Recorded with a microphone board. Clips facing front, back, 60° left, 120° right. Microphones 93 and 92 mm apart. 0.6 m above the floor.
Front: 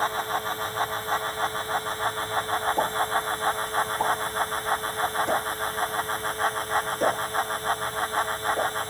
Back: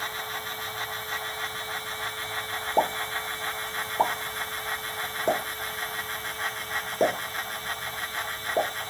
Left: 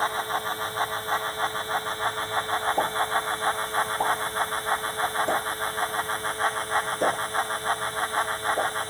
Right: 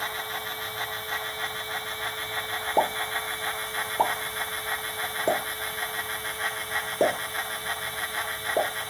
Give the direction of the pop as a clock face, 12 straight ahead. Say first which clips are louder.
Front 1 dB, left 1 dB; 4 o'clock.